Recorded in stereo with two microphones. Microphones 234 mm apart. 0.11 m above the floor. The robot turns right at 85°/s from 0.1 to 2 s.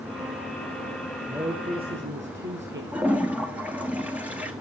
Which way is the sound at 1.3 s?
170° right.